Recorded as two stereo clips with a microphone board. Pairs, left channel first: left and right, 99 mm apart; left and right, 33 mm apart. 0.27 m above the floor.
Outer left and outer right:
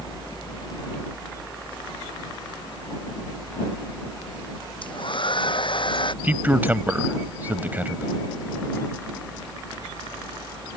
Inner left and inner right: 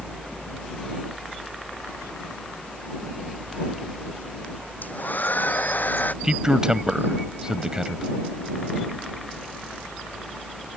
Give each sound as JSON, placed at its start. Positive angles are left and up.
{"t": 4.8, "sound": "a hair dryer", "side_deg": 60}
{"t": 6.2, "sound": "a man speaking", "side_deg": -20}